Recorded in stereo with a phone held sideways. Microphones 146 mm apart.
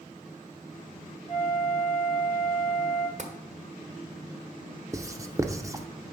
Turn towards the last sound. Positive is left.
turn(degrees=-20)  # may be behind; listen again after turning